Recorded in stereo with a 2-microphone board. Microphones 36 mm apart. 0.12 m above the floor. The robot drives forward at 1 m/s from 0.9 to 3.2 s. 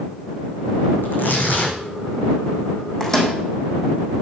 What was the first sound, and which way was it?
Tearing paper, 65° left (ahead or behind).